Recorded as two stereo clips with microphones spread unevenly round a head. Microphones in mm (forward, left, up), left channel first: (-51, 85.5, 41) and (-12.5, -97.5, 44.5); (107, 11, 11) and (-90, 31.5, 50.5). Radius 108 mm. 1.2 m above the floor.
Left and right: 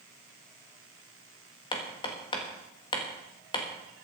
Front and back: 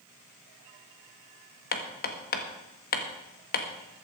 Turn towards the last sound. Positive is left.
turn(degrees=35)